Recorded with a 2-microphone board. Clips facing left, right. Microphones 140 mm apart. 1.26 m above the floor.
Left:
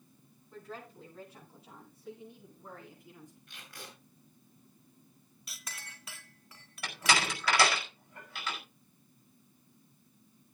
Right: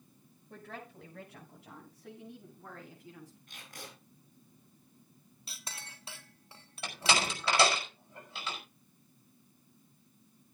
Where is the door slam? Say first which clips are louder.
Left 1 dB; 25° right (ahead or behind), 5 m.